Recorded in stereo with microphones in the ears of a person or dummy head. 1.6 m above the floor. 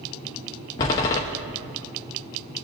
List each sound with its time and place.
0.8 s a door slam: 15° left (ahead or behind), 0.5 m